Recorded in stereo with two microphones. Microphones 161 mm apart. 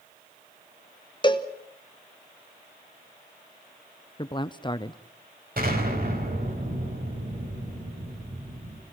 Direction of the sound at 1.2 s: 30° left (ahead or behind).